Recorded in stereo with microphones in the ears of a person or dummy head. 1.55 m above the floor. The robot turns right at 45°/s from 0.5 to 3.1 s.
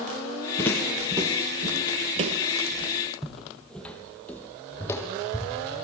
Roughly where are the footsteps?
Centre.